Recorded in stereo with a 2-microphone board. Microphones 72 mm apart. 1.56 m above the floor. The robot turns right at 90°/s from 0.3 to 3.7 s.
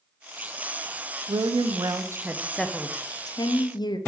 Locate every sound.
1.3 s a woman speaking: 115° right, 0.5 m; by 4.0 s 105° left, 0.5 m